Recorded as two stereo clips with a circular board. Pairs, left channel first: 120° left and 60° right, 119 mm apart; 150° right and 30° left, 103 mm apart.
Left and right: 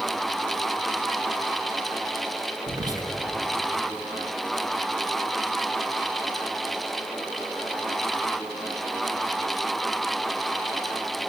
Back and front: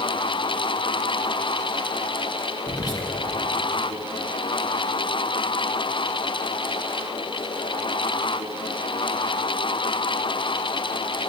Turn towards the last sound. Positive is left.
turn(degrees=-110)